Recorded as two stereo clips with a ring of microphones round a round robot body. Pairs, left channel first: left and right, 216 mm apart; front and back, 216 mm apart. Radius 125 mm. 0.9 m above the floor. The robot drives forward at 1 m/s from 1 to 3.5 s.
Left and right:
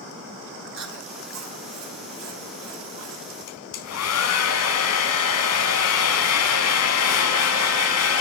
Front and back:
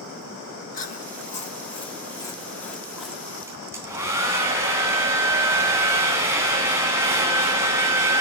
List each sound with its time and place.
0.7 s chewing: 55° right, 3.5 m; by 3.3 s 95° right, 3 m
3.5 s a hair dryer: 100° left, 3.5 m